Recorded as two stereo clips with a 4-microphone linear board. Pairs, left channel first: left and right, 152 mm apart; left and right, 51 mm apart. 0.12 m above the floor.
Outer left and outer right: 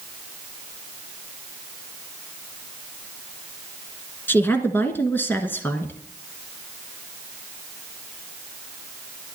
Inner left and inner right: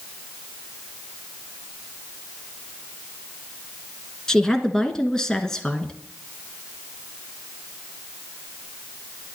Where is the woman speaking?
15° left (ahead or behind), 1.2 m.